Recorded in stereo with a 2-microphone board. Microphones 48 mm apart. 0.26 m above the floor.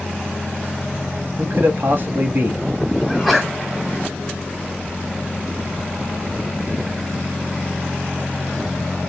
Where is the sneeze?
Centre (ahead or behind), 1.8 m.